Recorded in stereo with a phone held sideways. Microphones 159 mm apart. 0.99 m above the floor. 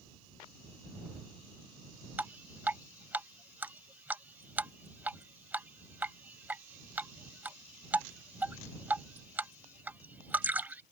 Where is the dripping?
10° right (ahead or behind).